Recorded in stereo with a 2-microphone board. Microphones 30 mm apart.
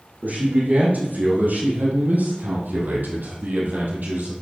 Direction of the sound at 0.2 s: 60° right (ahead or behind).